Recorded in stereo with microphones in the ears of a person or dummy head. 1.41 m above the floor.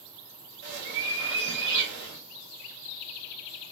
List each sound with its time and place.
0.6 s a bird: 60° right (ahead or behind), 2 m